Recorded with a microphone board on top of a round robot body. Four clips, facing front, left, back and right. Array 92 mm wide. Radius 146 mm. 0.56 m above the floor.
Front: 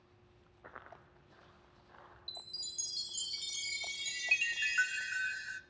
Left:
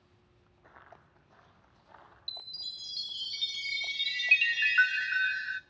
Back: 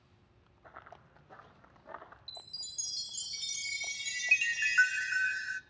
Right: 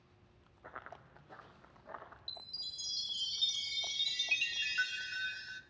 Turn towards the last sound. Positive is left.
turn(degrees=115)